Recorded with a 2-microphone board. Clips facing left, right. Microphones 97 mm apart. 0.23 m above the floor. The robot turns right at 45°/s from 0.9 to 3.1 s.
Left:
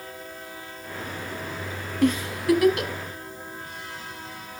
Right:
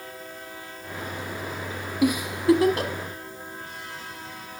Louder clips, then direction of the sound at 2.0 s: Right 1 dB; 10° right (ahead or behind).